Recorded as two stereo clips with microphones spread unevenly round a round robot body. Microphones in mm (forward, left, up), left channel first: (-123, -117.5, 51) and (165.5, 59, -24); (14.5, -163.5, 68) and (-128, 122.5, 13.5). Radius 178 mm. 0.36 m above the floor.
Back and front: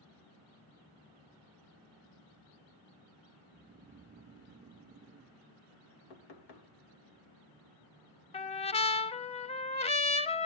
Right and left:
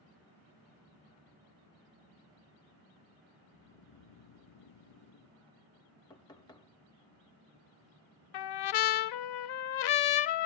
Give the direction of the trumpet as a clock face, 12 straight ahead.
2 o'clock.